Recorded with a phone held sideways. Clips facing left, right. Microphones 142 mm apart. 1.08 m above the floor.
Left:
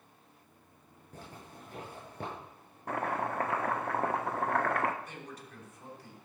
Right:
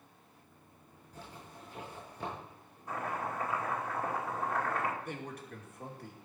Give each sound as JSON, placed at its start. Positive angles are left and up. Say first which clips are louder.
{"t": 1.1, "sound": "a zipper", "louder": "left 1 dB", "side_deg": 55, "distance_m": 8.0}
{"t": 2.9, "sound": "chopping", "louder": "left 4 dB", "side_deg": 65, "distance_m": 1.2}
{"t": 5.0, "sound": "a man speaking", "louder": "right 4 dB", "side_deg": -55, "distance_m": 2.5}